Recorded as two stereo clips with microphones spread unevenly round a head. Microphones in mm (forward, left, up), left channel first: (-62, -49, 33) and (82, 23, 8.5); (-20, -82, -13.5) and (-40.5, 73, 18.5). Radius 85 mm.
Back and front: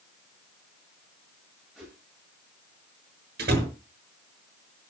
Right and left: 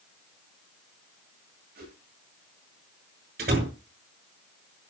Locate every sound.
1.8 s a whoosh: 115° left, 9.5 m
3.4 s a door slam: 65° left, 6 m